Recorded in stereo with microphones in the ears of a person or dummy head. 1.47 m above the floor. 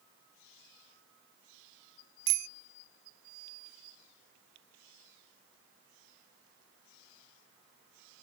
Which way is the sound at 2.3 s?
75° right (ahead or behind).